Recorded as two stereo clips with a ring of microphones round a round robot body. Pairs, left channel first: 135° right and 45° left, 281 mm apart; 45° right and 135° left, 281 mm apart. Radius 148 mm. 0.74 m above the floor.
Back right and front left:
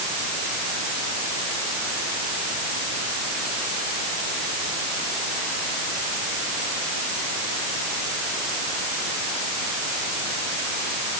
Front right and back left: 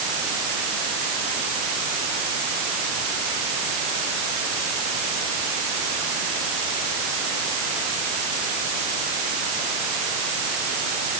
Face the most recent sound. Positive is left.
No sound to turn to.